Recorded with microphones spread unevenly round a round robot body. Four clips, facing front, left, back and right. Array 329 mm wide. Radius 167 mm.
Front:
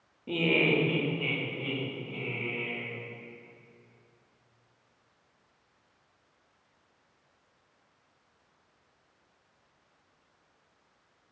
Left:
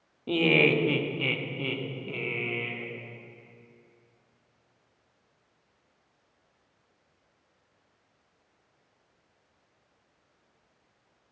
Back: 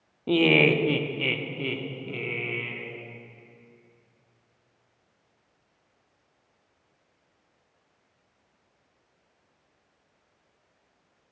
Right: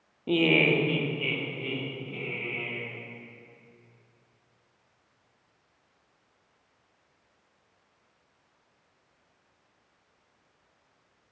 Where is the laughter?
155° right, 0.7 m; by 2.9 s 145° left, 1.6 m.